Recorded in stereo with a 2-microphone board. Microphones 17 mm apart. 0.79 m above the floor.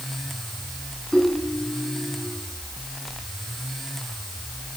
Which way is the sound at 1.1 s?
40° left (ahead or behind).